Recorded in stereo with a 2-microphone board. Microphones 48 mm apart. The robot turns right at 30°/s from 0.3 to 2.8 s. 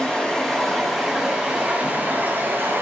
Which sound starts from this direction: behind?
Running water, at 0.0 s.